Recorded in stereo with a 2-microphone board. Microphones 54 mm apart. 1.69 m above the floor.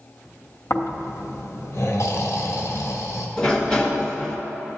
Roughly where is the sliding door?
Centre.